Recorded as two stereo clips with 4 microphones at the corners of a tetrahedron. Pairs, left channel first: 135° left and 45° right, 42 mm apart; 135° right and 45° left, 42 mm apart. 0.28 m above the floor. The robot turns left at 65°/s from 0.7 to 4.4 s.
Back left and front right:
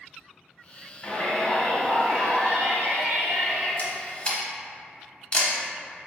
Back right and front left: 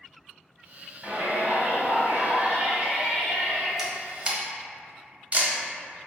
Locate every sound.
1.0 s a shout: 95° left, 1.4 m; by 3.7 s 80° right, 1.4 m
3.8 s a camera shutter: 125° left, 0.7 m; by 5.5 s 85° left, 0.7 m